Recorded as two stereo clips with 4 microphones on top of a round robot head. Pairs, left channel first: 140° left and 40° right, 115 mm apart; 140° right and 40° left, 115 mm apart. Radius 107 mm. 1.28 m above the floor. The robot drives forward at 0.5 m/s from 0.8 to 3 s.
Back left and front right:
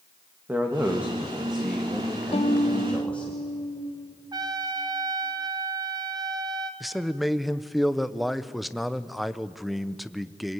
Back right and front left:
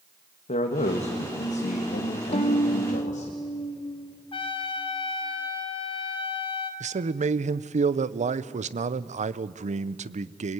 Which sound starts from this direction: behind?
A violin, at 2.3 s.